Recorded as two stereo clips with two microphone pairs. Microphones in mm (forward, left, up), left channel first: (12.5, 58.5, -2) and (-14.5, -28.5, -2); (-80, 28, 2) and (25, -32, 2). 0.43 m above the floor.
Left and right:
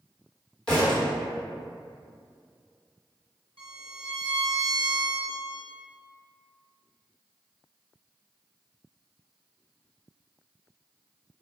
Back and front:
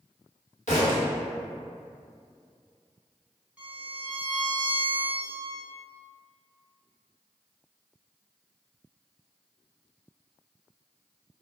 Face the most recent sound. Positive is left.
turn(degrees=-110)